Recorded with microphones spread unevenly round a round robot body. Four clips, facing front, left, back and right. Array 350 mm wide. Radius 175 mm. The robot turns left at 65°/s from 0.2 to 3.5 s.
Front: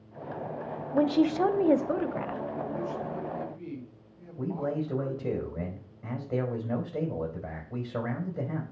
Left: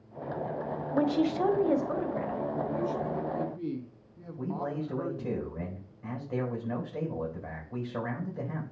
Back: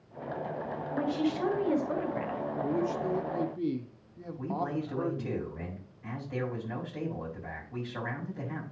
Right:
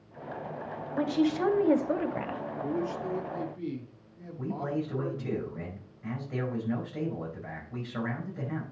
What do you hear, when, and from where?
0.9 s a woman speaking: 25° left, 1.1 m; by 2.4 s 75° right, 1.1 m
2.6 s a man speaking: 135° right, 1.2 m; by 5.4 s 165° left, 1.2 m
4.4 s a man speaking: 25° left, 4 m